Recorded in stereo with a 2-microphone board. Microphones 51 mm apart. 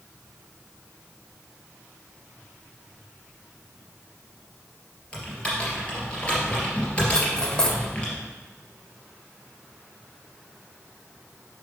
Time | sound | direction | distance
5.1 | typing on a keyboard | 20° left (ahead or behind) | 2.5 m
7.1 | cutlery clinking | 15° left (ahead or behind) | 1.1 m